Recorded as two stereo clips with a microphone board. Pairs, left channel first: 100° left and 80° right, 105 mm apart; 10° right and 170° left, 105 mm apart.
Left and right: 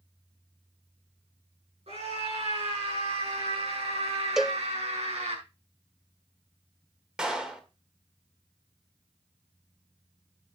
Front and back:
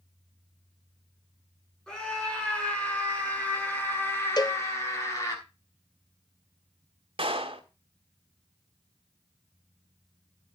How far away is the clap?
About 1.9 m.